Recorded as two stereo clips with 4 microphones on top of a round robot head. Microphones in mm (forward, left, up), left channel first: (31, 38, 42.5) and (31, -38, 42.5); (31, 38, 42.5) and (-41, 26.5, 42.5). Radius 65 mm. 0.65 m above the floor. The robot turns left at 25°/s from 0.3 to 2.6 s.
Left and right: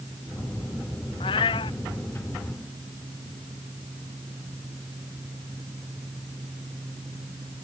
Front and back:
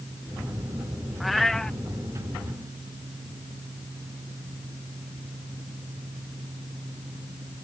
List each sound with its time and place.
1.2 s a cat meowing: 100° left; by 1.8 s 85° left